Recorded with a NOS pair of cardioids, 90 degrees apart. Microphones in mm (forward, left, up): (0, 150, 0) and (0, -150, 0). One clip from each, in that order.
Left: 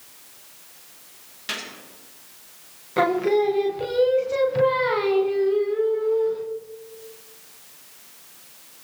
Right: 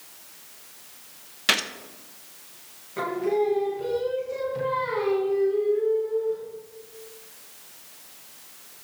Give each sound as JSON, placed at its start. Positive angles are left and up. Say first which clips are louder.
{"t": 1.5, "sound": "a gunshot", "louder": "right 8 dB", "azimuth_deg": -60, "distance_m": 1.1}
{"t": 3.0, "sound": "singing", "louder": "left 5 dB", "azimuth_deg": 60, "distance_m": 1.2}